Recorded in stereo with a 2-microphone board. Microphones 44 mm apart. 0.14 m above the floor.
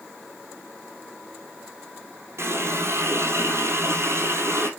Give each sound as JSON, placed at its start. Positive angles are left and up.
{"t": 2.4, "sound": "a running tap", "side_deg": -65, "distance_m": 3.0}